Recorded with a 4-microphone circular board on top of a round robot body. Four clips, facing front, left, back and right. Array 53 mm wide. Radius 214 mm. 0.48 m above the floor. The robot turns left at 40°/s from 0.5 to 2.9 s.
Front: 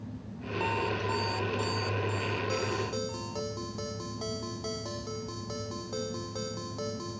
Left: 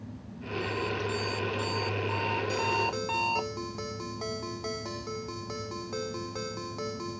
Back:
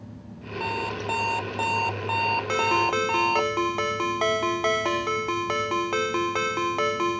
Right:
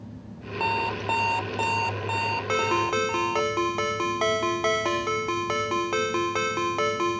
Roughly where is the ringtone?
Behind right.